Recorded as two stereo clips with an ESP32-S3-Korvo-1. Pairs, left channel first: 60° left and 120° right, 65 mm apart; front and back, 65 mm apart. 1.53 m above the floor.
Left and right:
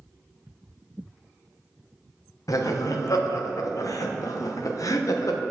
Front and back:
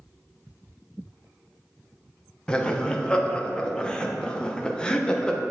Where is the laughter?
75° left, 0.8 m.